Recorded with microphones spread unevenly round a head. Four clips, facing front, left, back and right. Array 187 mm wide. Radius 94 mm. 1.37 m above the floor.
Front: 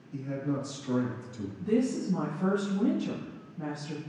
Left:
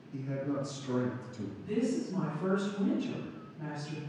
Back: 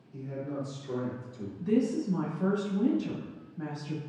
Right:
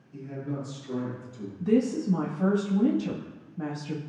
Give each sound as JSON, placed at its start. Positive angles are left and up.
{"t": 0.1, "sound": "a man speaking", "azimuth_deg": 20, "distance_m": 2.5}
{"t": 1.6, "sound": "a woman speaking", "azimuth_deg": -90, "distance_m": 2.5}